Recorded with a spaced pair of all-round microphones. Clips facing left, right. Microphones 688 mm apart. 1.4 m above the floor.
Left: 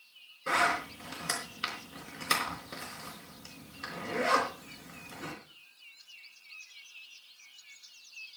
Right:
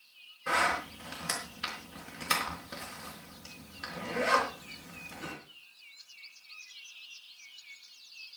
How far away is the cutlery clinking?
No cutlery clinking in this recording.